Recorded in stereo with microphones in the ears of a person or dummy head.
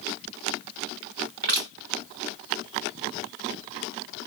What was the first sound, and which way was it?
Crushing, 55° right (ahead or behind).